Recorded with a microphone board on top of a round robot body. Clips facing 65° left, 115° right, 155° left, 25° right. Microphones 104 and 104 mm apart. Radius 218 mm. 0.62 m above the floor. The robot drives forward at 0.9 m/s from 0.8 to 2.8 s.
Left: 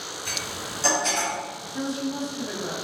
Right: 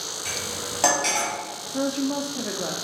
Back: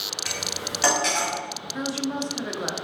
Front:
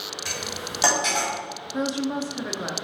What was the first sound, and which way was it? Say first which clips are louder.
Cutlery clinking: right 3 dB, even; 95° right.